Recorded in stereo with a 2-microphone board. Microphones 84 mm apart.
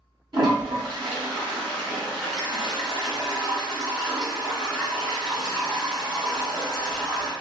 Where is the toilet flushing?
50° right (ahead or behind), 1.8 m.